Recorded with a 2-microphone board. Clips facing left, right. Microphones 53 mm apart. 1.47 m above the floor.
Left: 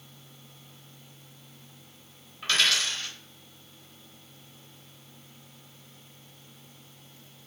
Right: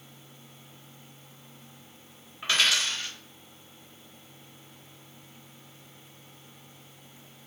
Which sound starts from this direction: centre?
A dropped coin, at 2.4 s.